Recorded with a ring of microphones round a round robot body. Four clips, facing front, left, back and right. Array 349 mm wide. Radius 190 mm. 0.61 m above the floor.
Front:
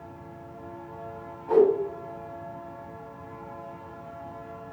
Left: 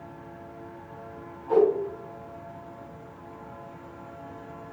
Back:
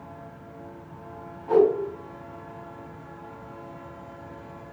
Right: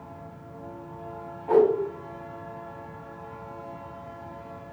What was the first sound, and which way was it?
A whoosh, 95° right.